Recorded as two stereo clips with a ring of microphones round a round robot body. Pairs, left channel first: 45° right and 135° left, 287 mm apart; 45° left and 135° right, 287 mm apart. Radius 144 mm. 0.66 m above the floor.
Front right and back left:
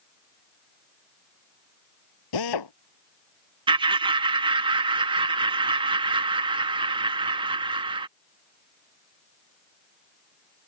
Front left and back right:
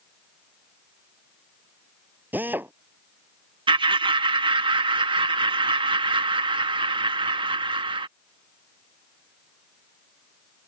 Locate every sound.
2.3 s a drill: 50° right
3.7 s laughter: straight behind